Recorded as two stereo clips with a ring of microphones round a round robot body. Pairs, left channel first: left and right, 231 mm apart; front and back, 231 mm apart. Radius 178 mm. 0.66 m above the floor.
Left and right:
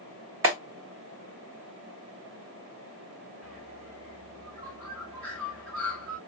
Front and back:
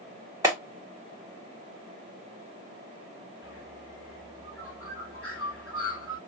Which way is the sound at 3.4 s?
100° right.